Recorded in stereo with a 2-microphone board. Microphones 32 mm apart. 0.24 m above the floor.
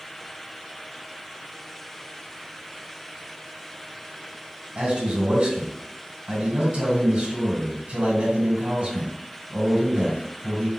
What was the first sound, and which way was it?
A man speaking, 45° right (ahead or behind).